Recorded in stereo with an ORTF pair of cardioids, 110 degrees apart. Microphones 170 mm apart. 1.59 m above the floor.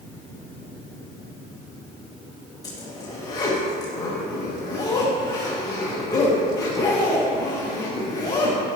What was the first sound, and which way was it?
A zipper, 20° left.